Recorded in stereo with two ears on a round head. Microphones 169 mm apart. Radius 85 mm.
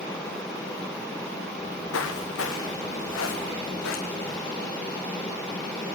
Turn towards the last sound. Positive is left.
turn(degrees=80)